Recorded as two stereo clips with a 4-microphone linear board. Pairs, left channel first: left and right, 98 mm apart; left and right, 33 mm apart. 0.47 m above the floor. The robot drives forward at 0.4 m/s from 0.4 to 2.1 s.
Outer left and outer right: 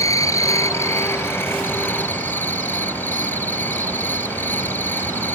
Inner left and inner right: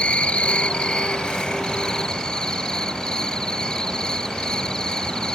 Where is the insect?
35° left (ahead or behind); by 5.3 s 20° left (ahead or behind).